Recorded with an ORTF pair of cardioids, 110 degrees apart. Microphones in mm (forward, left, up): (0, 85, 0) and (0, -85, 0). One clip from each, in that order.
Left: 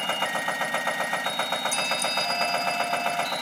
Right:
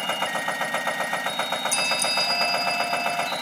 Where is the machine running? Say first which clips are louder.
Right 1 dB; 5° right.